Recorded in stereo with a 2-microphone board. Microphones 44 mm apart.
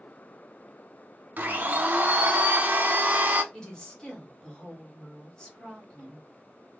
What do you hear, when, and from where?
1.4 s a blender: 40° right (ahead or behind), 0.7 m
3.5 s a woman speaking: 20° left (ahead or behind), 1.4 m